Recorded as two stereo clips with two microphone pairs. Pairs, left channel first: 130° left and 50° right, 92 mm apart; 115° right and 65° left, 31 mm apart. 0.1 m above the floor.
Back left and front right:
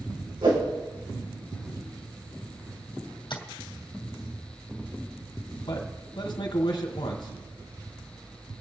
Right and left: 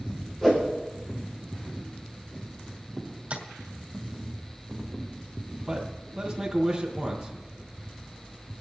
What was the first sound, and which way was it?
A whoosh, 40° right.